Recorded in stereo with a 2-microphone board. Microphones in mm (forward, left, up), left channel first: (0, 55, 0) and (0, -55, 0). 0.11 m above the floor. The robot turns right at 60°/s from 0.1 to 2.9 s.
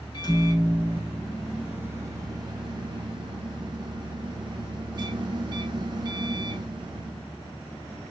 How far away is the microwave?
About 1.5 m.